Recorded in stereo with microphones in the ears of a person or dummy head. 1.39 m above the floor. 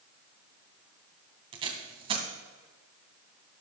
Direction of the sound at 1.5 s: 25° right (ahead or behind).